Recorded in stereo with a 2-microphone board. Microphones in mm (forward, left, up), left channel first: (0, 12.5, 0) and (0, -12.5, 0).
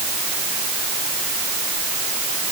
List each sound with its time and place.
Only background noise.